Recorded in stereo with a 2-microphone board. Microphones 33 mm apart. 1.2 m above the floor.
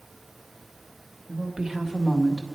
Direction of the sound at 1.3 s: 35° right (ahead or behind).